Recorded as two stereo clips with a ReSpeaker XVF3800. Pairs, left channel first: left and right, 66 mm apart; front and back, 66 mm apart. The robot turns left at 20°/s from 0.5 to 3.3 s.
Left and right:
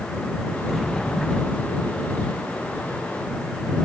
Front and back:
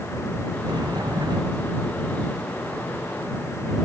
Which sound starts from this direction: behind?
A sliding door, at 0.7 s.